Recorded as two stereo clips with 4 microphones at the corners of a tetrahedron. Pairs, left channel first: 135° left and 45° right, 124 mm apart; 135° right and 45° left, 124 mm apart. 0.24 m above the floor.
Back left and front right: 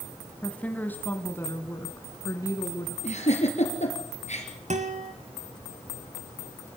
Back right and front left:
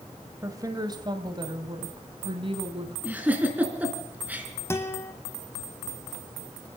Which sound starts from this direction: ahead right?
A guitar, at 4.7 s.